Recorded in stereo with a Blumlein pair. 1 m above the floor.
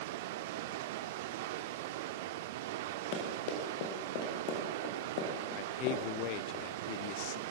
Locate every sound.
0.0 s running water: 50° right, 1.2 m
3.1 s running footsteps: 45° left, 7 m
5.6 s a man speaking: 45° left, 0.6 m